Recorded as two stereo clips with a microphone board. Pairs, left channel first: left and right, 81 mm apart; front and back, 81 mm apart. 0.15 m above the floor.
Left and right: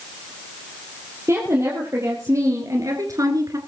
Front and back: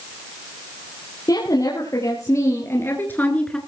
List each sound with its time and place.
1.3 s a woman speaking: 35° right, 4.5 m; by 3.6 s 75° right, 2 m